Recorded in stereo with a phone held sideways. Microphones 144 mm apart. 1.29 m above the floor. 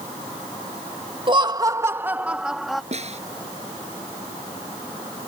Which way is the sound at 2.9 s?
50° right (ahead or behind).